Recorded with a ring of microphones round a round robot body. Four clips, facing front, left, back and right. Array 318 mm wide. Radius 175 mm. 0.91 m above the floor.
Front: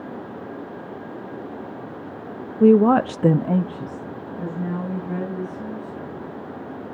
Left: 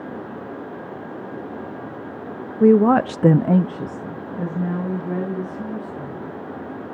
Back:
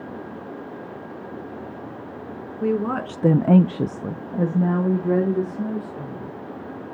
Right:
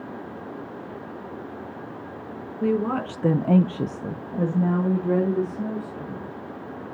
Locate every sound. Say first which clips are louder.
2.6 s a woman speaking: left 10 dB, front 10 dB; 40° left, 1.0 m; by 6.4 s 150° right, 3.5 m